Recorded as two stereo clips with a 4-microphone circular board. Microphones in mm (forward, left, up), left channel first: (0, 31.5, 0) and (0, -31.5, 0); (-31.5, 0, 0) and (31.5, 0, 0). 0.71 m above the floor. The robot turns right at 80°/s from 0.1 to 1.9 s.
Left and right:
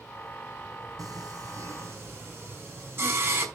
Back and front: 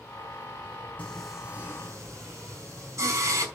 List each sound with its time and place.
1.0 s singing: 110° right, 5 m; by 3.5 s 40° right, 5 m